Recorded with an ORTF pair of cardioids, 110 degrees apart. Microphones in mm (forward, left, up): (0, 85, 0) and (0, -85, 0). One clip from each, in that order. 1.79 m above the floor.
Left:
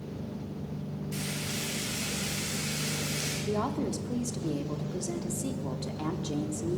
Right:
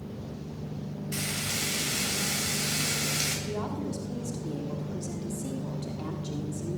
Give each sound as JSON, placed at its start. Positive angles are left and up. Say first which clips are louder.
{"t": 1.1, "sound": "frying", "louder": "right 4 dB", "azimuth_deg": -45, "distance_m": 8.0}
{"t": 3.5, "sound": "a woman speaking", "louder": "left 3 dB", "azimuth_deg": 35, "distance_m": 4.0}